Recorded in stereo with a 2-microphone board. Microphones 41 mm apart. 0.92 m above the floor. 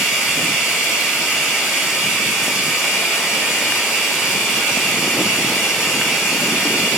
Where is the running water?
5° right (ahead or behind), 4 m.